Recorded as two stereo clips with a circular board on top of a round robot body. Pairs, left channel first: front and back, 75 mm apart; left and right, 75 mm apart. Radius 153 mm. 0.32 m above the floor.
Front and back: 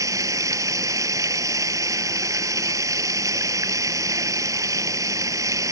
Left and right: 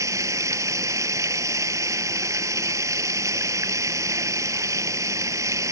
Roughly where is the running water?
Behind right.